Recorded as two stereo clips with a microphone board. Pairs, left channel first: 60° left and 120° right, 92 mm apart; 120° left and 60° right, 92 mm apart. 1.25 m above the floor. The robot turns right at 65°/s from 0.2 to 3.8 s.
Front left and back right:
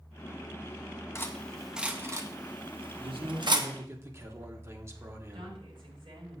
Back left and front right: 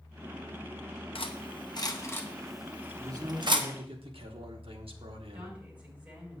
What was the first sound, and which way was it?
Cutlery clinking, 120° left.